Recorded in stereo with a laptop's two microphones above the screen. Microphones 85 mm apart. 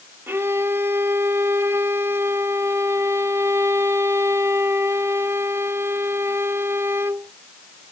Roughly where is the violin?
Right.